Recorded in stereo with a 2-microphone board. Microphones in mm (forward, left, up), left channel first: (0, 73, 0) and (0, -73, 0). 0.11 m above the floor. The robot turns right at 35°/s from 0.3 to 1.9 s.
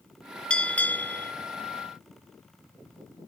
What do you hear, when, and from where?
0.5 s a bell: 5° left (ahead or behind), 0.6 m; by 1.3 s 15° left (ahead or behind), 0.6 m